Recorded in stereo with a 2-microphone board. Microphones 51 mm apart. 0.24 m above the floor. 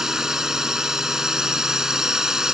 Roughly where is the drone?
Centre.